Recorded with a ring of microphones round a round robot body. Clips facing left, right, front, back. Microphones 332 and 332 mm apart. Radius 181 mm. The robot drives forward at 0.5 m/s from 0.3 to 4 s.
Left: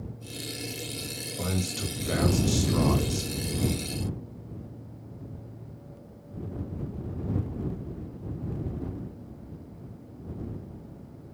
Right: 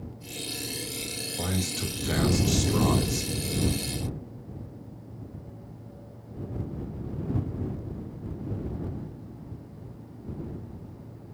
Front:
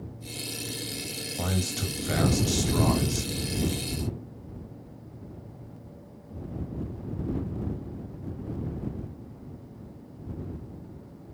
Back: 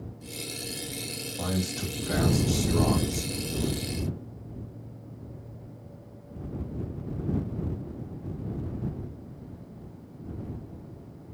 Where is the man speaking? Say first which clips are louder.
Even, back 1 dB; 5° right, 1.8 m; by 3.3 s 20° right, 1.2 m.